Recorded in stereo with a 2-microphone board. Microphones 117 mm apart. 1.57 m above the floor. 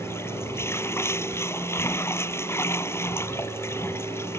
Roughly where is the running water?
Centre.